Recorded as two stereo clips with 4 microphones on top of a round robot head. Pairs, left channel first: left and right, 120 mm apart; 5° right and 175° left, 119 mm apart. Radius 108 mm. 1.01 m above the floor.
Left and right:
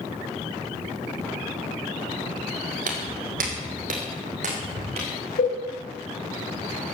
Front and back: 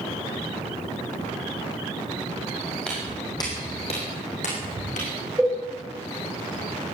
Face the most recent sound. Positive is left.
turn(degrees=95)